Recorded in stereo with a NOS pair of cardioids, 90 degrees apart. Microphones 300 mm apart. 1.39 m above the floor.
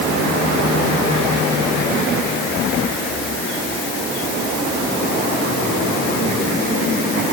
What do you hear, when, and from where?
Only background noise.